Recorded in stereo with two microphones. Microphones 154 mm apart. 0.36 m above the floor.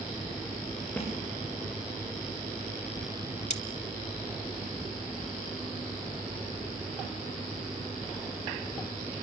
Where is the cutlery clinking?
50° left (ahead or behind), 1.0 m.